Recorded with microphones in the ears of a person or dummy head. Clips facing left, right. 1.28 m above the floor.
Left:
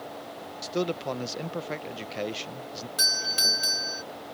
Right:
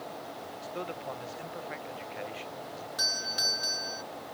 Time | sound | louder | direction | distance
0.6 | a man speaking | left 10 dB | 55° left (ahead or behind) | ?
3.0 | a doorbell | left 2 dB | 35° left (ahead or behind) | ?